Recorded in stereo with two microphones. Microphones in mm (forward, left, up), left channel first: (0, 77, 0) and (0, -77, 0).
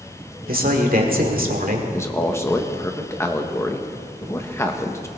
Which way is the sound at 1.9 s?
20° left (ahead or behind).